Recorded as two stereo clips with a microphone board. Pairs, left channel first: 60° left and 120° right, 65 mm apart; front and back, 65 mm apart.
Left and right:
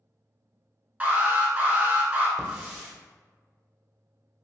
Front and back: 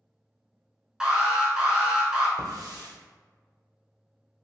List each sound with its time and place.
1.0 s an alarm: 115° right, 0.8 m
2.4 s a hiss: 165° left, 1.4 m